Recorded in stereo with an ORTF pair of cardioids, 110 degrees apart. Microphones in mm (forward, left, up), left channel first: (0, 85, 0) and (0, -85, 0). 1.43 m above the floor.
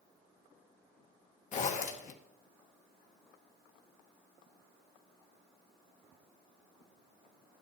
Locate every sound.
1.5 s a zipper: 45° left, 1.5 m